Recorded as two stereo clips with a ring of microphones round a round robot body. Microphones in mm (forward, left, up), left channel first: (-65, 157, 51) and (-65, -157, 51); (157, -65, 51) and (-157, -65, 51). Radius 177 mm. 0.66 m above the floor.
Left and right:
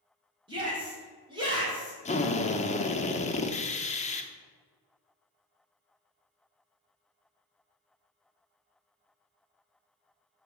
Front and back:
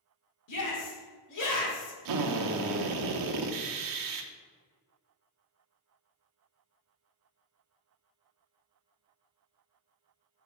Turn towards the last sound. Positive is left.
turn(degrees=160)